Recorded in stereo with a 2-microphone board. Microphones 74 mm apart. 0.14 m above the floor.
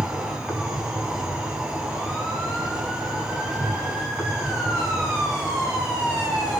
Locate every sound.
0.0 s an insect: 10° right (ahead or behind), 2.5 m